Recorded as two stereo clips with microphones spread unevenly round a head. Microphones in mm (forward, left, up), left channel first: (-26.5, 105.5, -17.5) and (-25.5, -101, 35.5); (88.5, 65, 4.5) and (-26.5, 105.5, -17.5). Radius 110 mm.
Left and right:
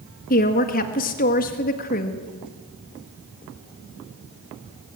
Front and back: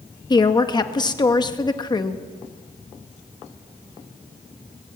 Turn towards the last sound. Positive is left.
turn(degrees=35)